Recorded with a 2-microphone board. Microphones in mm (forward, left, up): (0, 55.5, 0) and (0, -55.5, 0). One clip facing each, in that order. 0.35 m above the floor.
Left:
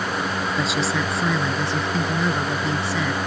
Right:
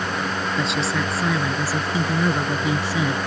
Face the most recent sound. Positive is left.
turn(degrees=-15)  # may be behind; listen again after turning